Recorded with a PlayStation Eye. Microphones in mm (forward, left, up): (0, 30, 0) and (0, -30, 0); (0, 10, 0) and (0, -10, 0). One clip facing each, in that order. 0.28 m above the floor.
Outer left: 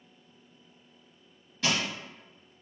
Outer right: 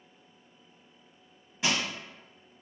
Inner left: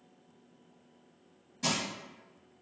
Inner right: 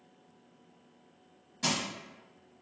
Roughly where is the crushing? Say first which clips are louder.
Even, inner right 1 dB; centre.